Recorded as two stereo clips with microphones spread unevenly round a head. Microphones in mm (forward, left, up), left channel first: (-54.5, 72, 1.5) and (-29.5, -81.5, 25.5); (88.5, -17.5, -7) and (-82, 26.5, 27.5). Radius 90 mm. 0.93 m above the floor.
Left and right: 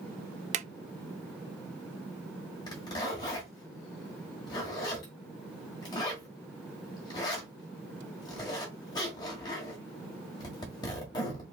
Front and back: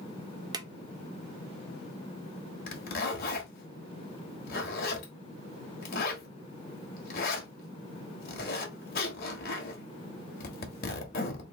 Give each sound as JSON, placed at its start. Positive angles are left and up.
{"t": 0.5, "sound": "a drawer", "azimuth_deg": -125, "distance_m": 0.5}
{"t": 2.7, "sound": "a zipper", "azimuth_deg": 25, "distance_m": 1.2}